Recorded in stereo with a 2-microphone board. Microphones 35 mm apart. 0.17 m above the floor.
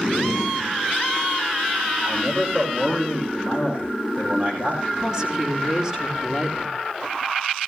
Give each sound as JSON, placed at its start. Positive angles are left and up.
{"t": 2.0, "sound": "a man speaking", "side_deg": -35, "distance_m": 6.5}
{"t": 5.0, "sound": "a woman speaking", "side_deg": -20, "distance_m": 4.5}